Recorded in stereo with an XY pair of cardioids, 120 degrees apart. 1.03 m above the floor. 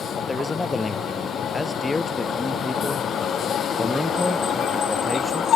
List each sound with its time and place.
0.2 s a man speaking: 20° left; by 5.5 s straight ahead